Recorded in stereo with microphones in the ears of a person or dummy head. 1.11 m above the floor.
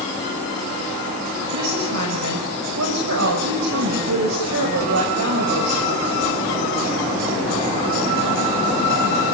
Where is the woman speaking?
80° right, 5.5 m.